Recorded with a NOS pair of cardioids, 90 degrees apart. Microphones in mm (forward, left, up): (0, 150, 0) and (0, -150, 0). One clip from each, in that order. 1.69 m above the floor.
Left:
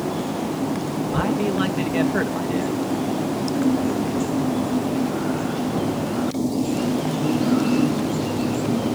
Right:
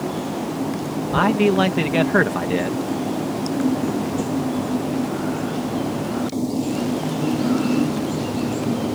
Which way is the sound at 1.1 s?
55° right.